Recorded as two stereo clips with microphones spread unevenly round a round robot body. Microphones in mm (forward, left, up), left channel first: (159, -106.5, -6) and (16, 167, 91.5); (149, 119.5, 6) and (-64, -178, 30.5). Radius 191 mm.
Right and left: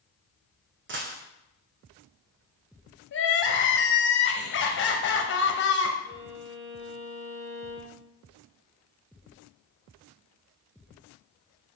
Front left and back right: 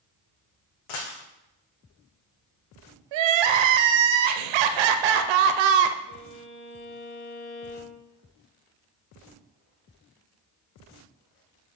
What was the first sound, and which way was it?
A dropped coin, 70° left.